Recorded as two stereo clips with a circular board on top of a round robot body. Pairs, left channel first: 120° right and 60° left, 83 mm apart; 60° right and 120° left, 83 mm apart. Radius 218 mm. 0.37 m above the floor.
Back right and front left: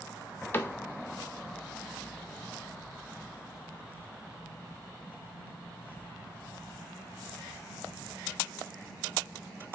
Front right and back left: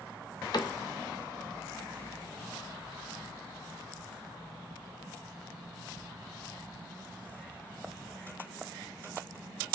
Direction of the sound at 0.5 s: 60° right.